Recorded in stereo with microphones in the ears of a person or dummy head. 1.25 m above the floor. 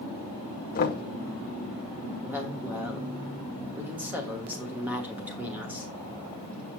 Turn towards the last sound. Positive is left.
turn(degrees=-15)  # may be behind; listen again after turning